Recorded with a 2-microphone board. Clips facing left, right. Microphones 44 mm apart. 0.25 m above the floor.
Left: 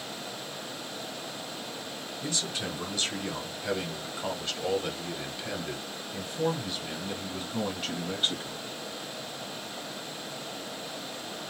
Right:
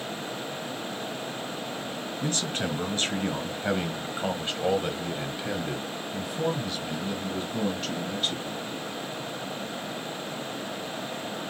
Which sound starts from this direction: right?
A man speaking, at 2.2 s.